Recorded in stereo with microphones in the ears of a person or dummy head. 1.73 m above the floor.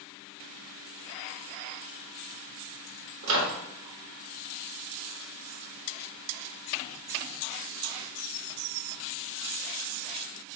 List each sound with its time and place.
3.2 s a microwave: 55° right (ahead or behind), 0.8 m